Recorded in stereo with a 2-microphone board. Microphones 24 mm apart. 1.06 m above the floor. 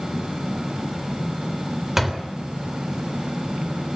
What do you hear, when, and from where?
2.0 s a door slam: 5° right (ahead or behind), 3 m